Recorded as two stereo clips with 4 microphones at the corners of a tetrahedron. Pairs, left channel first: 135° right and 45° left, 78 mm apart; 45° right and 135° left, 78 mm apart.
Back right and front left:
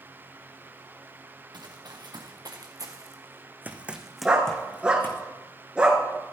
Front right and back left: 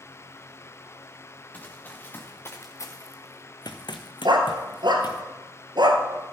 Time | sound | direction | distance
1.5 | running footsteps | 25° left | 2 m
4.2 | a dog barking | 125° left | 1.6 m